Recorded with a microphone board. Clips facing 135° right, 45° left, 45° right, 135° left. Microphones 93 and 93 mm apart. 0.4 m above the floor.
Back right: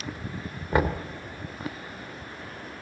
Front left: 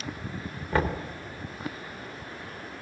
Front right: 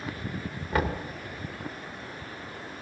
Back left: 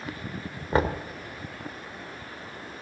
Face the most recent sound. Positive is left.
turn(degrees=160)